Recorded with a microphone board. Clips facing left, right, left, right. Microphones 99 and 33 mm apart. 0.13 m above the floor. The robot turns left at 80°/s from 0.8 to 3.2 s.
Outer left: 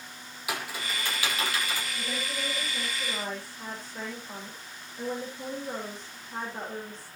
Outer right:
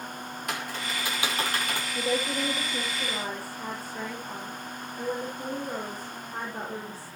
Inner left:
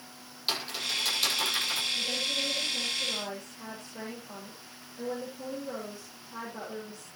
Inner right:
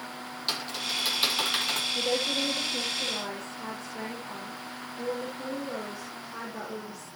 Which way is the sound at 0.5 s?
10° left (ahead or behind).